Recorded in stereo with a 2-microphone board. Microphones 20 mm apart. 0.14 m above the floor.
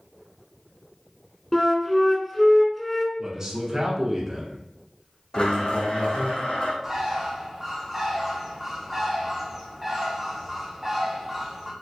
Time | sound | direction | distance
1.5 | a flute | 10° left (ahead or behind) | 0.7 m
3.2 | a man speaking | 25° right (ahead or behind) | 1.2 m
5.3 | a blender | 50° left (ahead or behind) | 1.2 m
6.8 | a bird | 15° right (ahead or behind) | 1.3 m